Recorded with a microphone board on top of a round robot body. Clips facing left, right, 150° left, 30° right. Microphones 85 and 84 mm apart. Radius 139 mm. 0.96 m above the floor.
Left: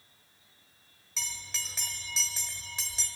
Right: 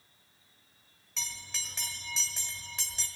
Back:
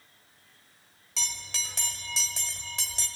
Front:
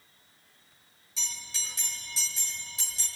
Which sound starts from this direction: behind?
A bell, at 1.2 s.